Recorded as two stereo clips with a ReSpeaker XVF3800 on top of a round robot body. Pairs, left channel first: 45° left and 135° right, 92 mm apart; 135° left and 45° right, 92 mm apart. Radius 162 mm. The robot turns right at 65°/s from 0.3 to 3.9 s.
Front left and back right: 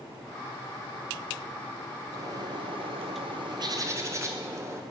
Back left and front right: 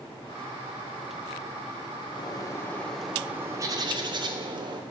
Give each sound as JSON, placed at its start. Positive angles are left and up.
{"t": 2.1, "sound": "a bird", "azimuth_deg": 165, "distance_m": 2.0}